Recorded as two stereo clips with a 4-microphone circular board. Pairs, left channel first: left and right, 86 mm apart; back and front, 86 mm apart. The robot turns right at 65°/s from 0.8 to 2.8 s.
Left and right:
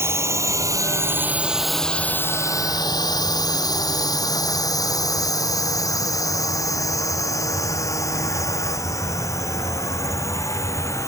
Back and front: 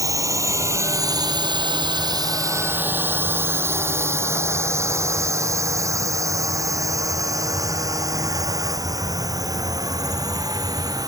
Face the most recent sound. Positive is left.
turn(degrees=40)